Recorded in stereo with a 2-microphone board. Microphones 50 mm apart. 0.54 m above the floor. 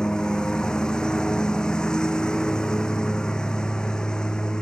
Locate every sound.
0.0 s a lawn mower: 15° left (ahead or behind)